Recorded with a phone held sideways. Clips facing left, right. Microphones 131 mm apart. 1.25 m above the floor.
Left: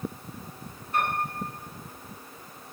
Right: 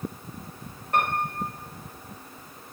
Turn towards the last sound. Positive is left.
turn(degrees=-75)  # may be behind; listen again after turning